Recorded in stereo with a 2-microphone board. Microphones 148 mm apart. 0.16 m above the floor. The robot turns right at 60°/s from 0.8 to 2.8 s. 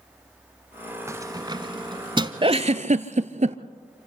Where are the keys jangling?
20° right (ahead or behind), 0.9 m; by 2.3 s 35° right (ahead or behind), 0.9 m.